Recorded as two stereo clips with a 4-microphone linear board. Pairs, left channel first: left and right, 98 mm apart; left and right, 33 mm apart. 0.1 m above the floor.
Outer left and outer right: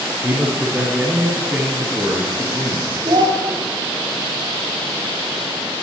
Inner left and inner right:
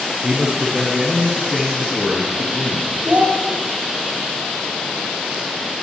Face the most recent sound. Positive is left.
turn(degrees=-55)  # may be behind; listen again after turning